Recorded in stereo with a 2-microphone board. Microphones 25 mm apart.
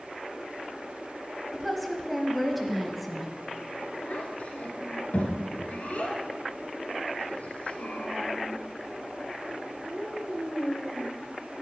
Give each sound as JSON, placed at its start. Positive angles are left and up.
{"t": 1.5, "sound": "a woman speaking", "side_deg": 0, "distance_m": 1.1}
{"t": 4.0, "sound": "a child speaking", "side_deg": 65, "distance_m": 1.9}